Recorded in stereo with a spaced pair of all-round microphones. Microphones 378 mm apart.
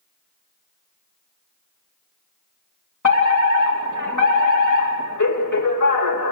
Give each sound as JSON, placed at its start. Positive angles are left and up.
{"t": 3.0, "sound": "a fire alarm", "side_deg": 55, "distance_m": 2.5}